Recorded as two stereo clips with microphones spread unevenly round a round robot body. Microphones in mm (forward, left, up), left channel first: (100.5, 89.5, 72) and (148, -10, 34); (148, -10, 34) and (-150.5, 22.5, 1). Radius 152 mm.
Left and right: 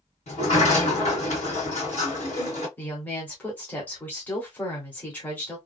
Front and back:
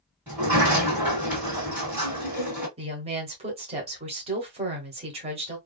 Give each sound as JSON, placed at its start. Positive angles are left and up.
{"t": 0.3, "sound": "a sliding door", "azimuth_deg": 95, "distance_m": 1.9}
{"t": 2.8, "sound": "a woman speaking", "azimuth_deg": -150, "distance_m": 1.0}